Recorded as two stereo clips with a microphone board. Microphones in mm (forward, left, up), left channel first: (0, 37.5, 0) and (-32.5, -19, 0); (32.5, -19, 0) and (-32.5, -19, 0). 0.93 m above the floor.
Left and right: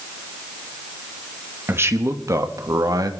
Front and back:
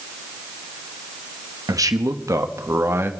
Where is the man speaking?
170° right, 1.1 m; by 3.1 s 130° right, 1.3 m.